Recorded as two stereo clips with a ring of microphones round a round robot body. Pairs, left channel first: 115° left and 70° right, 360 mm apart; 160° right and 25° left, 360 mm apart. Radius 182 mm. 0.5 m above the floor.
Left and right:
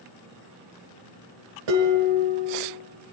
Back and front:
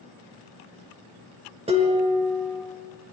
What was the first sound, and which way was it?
Dishes clattering, 50° right.